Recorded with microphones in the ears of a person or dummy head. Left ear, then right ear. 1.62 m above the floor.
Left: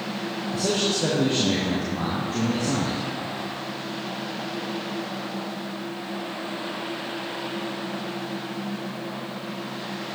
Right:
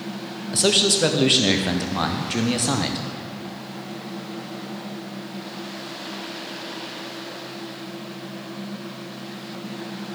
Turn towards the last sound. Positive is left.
turn(degrees=-35)  # may be behind; listen again after turning